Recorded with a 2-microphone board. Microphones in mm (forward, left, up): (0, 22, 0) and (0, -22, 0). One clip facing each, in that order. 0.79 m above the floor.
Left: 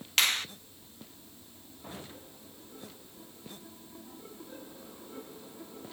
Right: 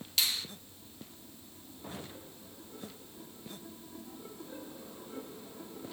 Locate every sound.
0.2 s a finger snap: 60° left (ahead or behind), 0.6 m